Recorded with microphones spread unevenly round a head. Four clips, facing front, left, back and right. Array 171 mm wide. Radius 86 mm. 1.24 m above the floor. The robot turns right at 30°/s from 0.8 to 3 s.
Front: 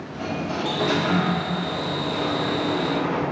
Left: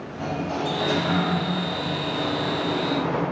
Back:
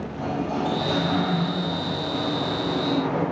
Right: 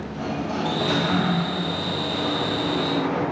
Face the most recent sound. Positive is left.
turn(degrees=25)